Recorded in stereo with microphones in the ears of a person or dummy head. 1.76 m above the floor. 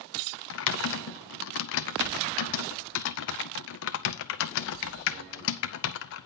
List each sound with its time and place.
0.5 s typing on a keyboard: 70° left (ahead or behind), 0.8 m